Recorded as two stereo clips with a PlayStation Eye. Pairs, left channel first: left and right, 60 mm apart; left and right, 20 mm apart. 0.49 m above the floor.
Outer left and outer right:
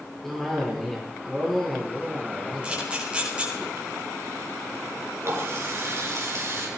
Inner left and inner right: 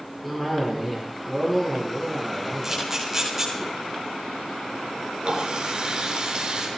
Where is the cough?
5° left (ahead or behind), 8 m.